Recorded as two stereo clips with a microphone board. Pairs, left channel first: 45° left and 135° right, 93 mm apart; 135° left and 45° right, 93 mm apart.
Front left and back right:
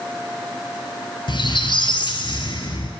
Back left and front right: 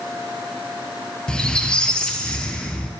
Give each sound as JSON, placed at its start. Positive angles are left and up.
{"t": 1.3, "sound": "a squeak", "azimuth_deg": 55, "distance_m": 1.0}